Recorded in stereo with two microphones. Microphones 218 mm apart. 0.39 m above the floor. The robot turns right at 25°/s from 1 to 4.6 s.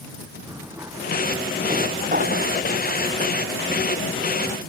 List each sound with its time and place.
0.5 s a drawer: 15° right (ahead or behind); by 2.5 s 50° right (ahead or behind)